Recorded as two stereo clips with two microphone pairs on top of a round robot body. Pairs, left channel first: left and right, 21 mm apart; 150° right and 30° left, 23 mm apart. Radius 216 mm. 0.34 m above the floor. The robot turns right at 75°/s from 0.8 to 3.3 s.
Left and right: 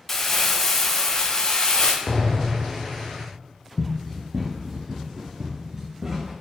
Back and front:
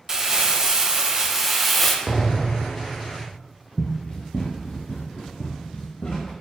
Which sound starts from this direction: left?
An explosion, at 2.1 s.